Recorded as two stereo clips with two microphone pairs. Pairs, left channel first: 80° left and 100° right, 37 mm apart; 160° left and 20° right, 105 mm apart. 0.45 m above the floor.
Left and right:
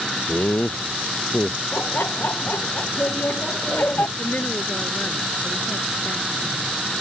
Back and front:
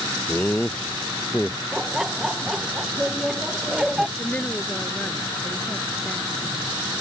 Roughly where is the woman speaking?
Left.